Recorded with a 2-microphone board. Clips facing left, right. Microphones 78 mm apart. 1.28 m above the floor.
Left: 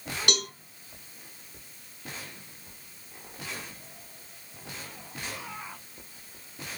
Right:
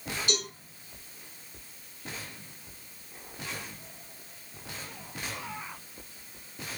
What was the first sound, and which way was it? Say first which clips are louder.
A cowbell: left 3 dB; 70° left (ahead or behind).